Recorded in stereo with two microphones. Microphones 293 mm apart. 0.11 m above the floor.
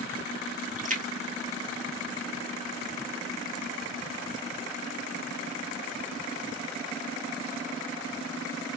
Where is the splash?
25° right (ahead or behind), 1.1 m.